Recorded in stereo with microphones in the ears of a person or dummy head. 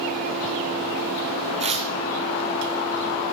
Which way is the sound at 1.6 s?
30° right (ahead or behind).